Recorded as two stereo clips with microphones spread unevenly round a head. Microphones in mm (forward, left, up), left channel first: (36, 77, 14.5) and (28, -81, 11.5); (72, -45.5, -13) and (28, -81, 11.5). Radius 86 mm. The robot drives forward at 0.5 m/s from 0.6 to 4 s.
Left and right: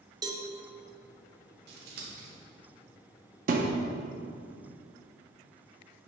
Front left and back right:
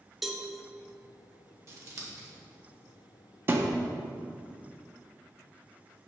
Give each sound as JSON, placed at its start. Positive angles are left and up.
{"t": 0.2, "sound": "a cowbell", "azimuth_deg": -35, "distance_m": 0.8}
{"t": 1.7, "sound": "scissors", "azimuth_deg": -125, "distance_m": 1.3}
{"t": 3.5, "sound": "a thud", "azimuth_deg": -130, "distance_m": 0.5}